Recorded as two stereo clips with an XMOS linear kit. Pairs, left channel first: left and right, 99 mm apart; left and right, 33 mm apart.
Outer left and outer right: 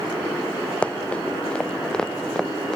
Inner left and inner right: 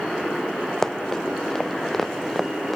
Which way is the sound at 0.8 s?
10° left (ahead or behind).